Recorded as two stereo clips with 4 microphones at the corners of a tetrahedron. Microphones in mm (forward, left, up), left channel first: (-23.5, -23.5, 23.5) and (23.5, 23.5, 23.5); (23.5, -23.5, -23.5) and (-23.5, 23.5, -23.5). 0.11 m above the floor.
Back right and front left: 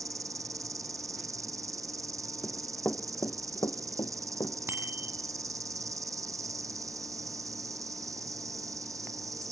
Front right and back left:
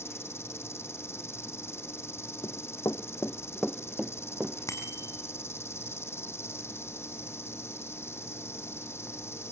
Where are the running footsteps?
55° right, 1.4 m; by 4.6 s 160° right, 1.7 m.